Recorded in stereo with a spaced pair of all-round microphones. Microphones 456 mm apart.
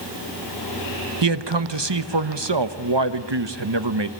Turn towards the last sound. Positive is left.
turn(degrees=-65)  # may be behind; listen again after turning